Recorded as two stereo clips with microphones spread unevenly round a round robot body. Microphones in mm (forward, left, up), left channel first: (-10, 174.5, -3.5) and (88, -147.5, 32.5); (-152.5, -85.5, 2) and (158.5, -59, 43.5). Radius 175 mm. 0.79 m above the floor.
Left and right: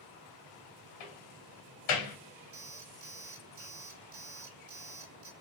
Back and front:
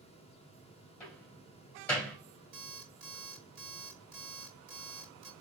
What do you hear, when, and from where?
1.0 s a door slam: 100° left, 2.5 m
2.5 s an alarm clock: 10° right, 1.8 m